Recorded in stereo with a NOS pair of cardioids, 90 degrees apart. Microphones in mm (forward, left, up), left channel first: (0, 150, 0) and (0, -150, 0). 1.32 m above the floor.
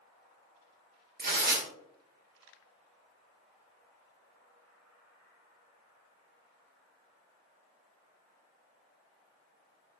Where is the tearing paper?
30° right, 1.0 m.